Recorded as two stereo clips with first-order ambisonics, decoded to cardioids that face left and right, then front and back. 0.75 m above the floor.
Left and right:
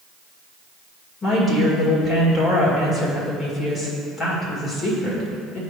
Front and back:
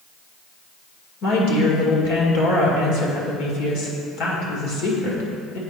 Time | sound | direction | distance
1.2 | a woman speaking | 20° left | 2 m